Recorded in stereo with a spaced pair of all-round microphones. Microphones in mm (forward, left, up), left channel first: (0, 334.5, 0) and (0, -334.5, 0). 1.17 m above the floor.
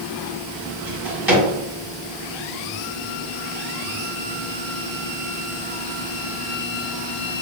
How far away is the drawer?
About 1.3 m.